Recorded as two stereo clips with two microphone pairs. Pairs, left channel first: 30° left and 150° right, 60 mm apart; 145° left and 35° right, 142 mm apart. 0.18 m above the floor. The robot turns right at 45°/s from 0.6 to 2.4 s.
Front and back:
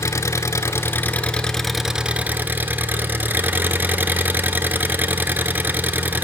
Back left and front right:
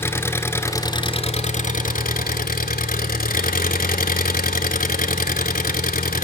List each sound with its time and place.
0.0 s an engine running: 70° left, 0.7 m; by 6.2 s 150° left, 0.7 m